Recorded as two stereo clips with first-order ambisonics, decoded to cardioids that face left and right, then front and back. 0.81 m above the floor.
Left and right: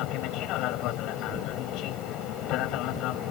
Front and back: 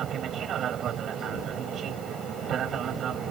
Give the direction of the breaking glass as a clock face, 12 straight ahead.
No breaking glass in this recording.